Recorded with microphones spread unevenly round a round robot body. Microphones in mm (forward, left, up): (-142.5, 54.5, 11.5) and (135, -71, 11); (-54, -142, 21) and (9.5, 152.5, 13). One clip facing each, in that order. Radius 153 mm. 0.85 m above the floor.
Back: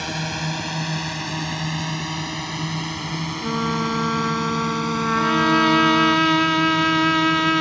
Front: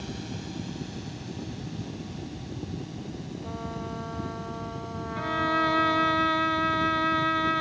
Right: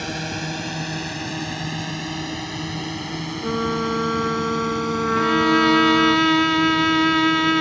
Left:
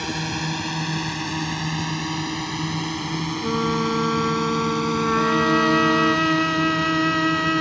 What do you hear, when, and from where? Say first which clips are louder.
0.0 s a drone: back 6 dB, left 1 dB; 155° left; by 7.6 s 145° left
3.4 s a trumpet: back 16 dB, even; 165° left
5.2 s a violin: back 10 dB, right 4 dB; 170° right